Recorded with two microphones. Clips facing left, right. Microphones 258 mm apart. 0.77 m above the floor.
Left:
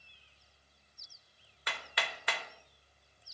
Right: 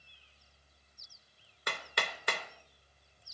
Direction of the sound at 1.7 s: 45° right (ahead or behind).